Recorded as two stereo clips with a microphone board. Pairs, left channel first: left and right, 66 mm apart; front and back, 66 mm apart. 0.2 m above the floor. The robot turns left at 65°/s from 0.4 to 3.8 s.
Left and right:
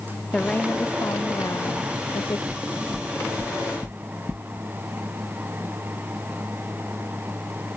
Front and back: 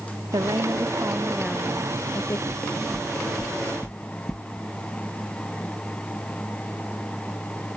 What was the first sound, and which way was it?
A woman speaking, 170° left.